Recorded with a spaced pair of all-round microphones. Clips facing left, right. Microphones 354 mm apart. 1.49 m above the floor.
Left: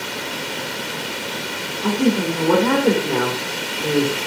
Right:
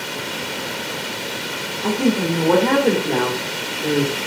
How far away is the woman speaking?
About 1.6 m.